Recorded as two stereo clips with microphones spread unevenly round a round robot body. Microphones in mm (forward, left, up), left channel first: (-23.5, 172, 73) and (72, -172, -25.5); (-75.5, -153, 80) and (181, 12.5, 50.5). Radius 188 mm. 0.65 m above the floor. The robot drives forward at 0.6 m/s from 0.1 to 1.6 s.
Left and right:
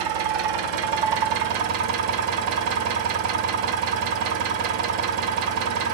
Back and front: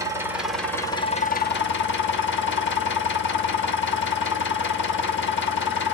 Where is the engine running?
50° right, 1.3 m; by 5.9 s 95° right, 1.0 m.